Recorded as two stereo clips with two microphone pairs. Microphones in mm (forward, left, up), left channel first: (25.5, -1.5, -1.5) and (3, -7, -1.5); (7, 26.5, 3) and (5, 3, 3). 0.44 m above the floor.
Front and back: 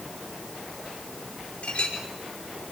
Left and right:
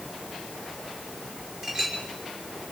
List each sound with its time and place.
1.6 s a clink: 30° right, 5.5 m